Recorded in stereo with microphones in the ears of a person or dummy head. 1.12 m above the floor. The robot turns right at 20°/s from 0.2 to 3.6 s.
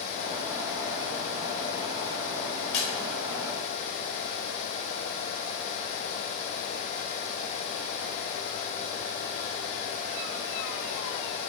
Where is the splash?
35° left (ahead or behind), 1.4 m; by 2.9 s 40° left (ahead or behind), 1.4 m.